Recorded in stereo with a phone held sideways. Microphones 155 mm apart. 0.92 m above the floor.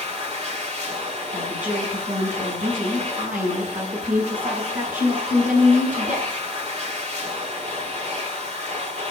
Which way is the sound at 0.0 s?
45° right (ahead or behind).